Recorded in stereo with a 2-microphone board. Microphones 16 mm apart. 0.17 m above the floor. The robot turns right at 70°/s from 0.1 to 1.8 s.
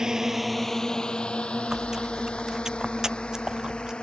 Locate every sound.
0.0 s a drone: 35° right (ahead or behind); by 4.0 s 65° left (ahead or behind)
1.7 s chewing: 40° right (ahead or behind); by 3.9 s 30° right (ahead or behind)